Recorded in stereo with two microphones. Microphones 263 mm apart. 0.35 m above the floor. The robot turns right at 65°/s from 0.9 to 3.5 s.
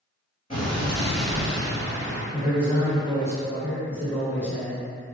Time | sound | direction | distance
0.5 | an explosion | 160° left | 1.1 m
2.3 | a man speaking | 20° right (ahead or behind) | 1.0 m